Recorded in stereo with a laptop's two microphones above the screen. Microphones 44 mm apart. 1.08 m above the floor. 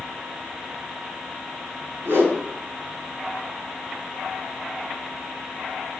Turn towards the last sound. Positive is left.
turn(degrees=-65)  # may be behind; listen again after turning